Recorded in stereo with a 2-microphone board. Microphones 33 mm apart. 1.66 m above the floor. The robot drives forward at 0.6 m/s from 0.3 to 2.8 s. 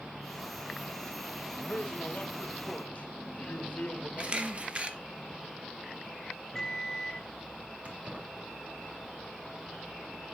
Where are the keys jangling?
40° right (ahead or behind), 4 m.